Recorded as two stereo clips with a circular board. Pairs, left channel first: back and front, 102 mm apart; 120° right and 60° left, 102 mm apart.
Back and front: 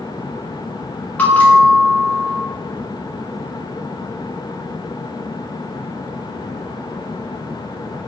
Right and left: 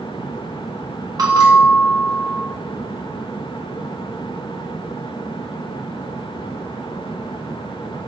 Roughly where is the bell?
Left.